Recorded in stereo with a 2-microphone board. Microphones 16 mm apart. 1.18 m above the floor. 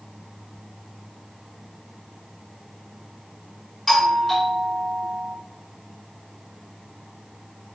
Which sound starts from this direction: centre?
A doorbell, at 3.9 s.